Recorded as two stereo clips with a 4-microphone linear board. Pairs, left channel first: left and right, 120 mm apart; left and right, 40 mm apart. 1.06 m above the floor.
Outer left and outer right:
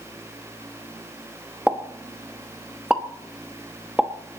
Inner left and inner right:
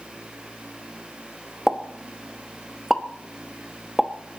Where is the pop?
10° right (ahead or behind), 1.1 m.